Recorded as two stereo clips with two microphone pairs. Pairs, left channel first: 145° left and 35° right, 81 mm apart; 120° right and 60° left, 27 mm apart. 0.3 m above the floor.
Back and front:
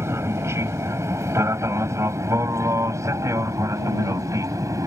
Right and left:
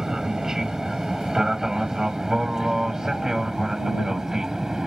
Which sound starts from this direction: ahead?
An aircraft, at 0.0 s.